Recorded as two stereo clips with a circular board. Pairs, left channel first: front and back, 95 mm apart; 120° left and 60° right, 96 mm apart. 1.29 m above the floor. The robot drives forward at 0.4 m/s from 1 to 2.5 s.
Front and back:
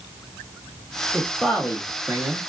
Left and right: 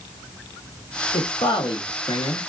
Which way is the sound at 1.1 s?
85° left.